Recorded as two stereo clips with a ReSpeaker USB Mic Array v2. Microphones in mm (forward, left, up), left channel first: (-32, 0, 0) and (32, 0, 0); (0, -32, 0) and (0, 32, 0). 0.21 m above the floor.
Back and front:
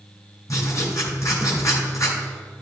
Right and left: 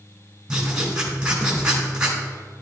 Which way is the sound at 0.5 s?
170° left.